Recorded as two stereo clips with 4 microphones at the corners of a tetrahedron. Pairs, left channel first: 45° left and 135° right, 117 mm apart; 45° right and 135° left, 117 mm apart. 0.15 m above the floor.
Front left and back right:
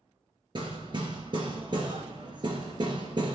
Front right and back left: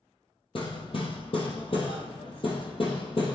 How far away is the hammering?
About 2.5 m.